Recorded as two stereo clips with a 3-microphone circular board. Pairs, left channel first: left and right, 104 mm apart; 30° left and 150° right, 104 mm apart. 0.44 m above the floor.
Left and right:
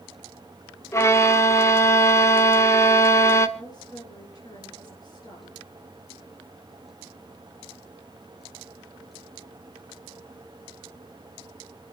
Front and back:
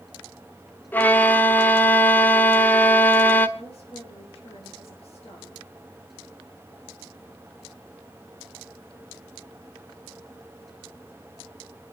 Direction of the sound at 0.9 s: 80° left.